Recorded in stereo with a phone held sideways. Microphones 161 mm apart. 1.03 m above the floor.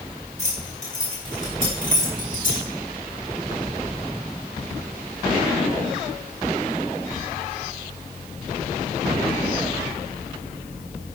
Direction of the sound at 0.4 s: 50° left (ahead or behind).